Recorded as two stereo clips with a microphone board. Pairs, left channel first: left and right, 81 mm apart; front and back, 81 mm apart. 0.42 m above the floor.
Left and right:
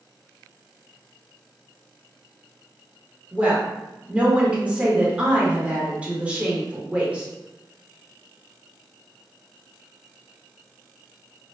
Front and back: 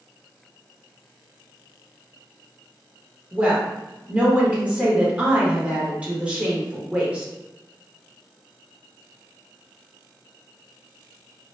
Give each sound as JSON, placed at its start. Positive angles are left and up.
{"t": 3.3, "sound": "a woman speaking", "azimuth_deg": -135, "distance_m": 0.8}